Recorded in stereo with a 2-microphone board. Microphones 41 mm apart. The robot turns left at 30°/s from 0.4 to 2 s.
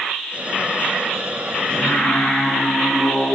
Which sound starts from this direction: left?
Singing, at 1.7 s.